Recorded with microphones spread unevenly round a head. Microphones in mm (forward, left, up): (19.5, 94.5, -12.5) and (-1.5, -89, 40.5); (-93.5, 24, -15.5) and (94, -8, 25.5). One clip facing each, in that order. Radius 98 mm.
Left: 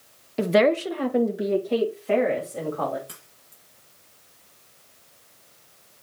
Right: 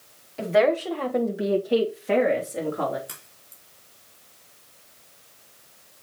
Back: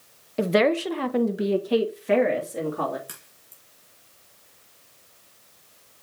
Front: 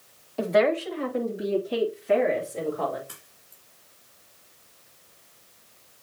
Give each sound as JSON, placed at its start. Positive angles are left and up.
{"t": 0.4, "sound": "a woman speaking", "azimuth_deg": 105, "distance_m": 0.8}
{"t": 3.1, "sound": "a crack", "azimuth_deg": -165, "distance_m": 5.0}